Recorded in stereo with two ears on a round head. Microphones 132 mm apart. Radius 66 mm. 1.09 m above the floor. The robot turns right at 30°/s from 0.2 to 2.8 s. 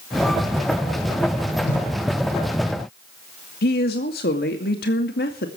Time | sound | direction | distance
1.6 | a whoosh | 55° left (ahead or behind) | 6 m
3.6 | a woman speaking | 70° left (ahead or behind) | 2 m